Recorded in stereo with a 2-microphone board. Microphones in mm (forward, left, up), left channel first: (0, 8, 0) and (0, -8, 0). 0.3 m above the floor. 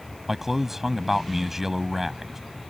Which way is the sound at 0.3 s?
25° right (ahead or behind).